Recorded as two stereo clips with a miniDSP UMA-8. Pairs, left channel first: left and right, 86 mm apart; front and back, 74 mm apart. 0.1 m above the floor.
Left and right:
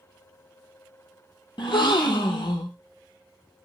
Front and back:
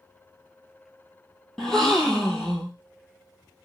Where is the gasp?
85° left, 0.7 m.